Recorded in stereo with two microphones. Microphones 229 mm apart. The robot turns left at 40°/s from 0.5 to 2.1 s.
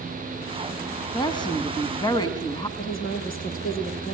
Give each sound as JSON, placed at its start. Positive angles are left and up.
{"t": 1.1, "sound": "a woman speaking", "side_deg": 20, "distance_m": 1.6}
{"t": 2.8, "sound": "a woman speaking", "side_deg": 40, "distance_m": 5.5}